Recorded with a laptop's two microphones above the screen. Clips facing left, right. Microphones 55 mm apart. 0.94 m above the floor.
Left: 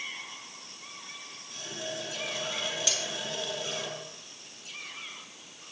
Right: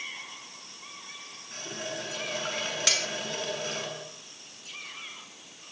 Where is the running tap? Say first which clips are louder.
Right 1 dB; 45° right (ahead or behind), 6.5 m.